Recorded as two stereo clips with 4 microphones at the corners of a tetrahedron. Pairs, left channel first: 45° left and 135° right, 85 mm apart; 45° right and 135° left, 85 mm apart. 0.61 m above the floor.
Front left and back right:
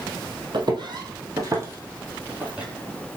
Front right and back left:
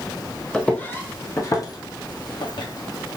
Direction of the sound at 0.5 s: 125° right.